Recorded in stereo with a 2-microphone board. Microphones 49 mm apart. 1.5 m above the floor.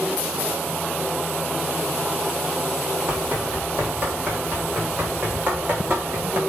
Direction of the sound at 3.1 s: 35° right (ahead or behind).